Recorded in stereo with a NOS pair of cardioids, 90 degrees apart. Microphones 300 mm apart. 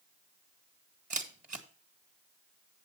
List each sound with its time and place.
1.1 s a camera shutter: 25° right, 1.9 m